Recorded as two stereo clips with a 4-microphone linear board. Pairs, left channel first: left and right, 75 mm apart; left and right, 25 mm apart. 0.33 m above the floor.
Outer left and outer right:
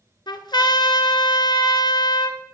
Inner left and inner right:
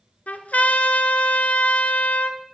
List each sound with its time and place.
0.3 s a trumpet: 75° left (ahead or behind), 0.8 m